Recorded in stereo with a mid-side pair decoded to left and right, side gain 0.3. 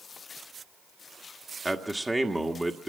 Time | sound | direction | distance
1.6 | a man speaking | 20° right | 1.6 m